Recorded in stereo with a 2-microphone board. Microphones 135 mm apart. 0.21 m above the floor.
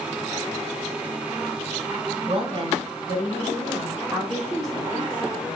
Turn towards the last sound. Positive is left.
turn(degrees=15)  # may be behind; listen again after turning